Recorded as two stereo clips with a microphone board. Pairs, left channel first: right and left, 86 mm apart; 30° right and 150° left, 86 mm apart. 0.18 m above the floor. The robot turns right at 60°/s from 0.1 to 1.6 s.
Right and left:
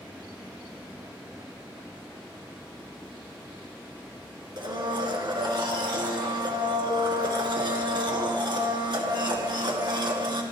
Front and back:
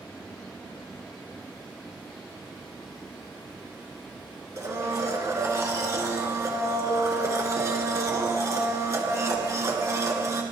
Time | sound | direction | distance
4.6 | a blender | 105° left | 2.5 m